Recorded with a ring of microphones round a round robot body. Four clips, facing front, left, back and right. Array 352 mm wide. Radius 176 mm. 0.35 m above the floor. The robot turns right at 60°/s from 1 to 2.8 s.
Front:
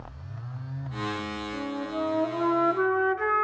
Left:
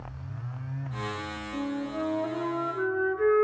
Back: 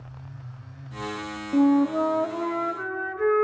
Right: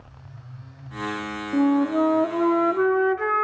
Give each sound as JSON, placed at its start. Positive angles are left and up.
{"t": 1.5, "sound": "a flute", "azimuth_deg": -140, "distance_m": 0.5}